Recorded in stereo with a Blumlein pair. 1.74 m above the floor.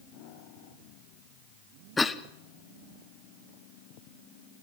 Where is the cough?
10° left, 1.1 m.